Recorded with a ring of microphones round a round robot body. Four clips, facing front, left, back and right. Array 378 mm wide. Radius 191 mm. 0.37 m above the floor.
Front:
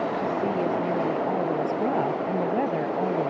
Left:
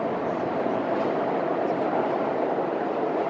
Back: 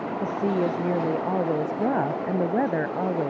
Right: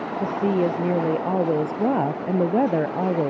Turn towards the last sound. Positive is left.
turn(degrees=-100)